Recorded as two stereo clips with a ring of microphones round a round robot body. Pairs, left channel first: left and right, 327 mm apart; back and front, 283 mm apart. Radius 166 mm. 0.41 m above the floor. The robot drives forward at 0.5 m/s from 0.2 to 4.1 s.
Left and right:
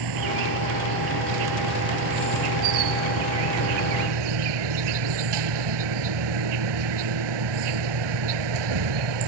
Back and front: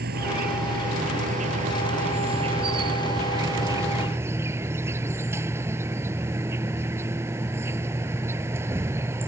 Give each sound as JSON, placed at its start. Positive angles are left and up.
{"t": 0.0, "sound": "an insect", "azimuth_deg": -65}